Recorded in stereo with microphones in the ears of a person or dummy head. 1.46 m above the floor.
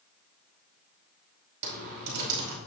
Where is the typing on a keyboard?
55° right (ahead or behind), 4.5 m.